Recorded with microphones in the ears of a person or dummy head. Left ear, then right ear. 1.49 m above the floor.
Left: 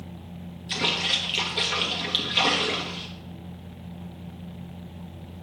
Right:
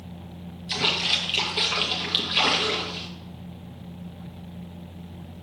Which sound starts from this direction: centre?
A splash, at 0.7 s.